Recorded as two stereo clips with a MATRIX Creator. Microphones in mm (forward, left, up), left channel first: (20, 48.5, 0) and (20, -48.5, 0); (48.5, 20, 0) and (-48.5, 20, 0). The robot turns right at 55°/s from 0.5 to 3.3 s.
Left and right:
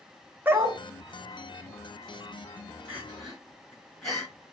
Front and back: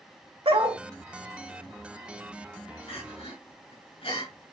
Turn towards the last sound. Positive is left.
turn(degrees=5)